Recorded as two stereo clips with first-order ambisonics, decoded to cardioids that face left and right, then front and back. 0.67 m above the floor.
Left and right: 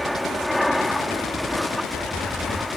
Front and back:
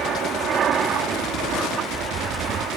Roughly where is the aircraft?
Behind.